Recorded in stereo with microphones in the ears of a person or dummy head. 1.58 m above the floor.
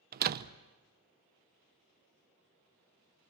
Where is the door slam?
50° right (ahead or behind), 0.8 m.